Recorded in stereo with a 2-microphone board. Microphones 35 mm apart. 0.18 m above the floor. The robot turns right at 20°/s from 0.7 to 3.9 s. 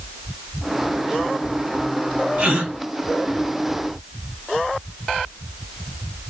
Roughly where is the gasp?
Right.